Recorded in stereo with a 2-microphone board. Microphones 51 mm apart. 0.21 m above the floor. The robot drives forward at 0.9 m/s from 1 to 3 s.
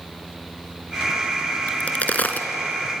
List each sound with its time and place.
1.7 s a crack: 25° left (ahead or behind), 2 m; by 2.5 s 35° left (ahead or behind), 1.5 m